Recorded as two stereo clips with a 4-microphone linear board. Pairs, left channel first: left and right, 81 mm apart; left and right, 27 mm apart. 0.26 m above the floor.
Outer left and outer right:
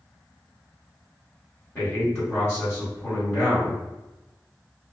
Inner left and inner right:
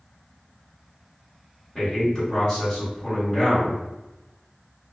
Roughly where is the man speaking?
Left.